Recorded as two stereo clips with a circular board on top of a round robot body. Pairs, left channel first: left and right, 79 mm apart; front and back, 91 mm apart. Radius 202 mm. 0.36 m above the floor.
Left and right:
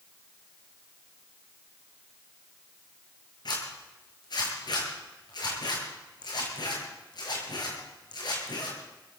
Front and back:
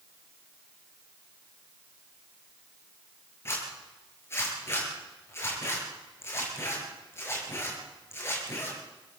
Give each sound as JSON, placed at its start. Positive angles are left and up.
{"t": 3.5, "sound": "a zipper", "azimuth_deg": 65, "distance_m": 8.5}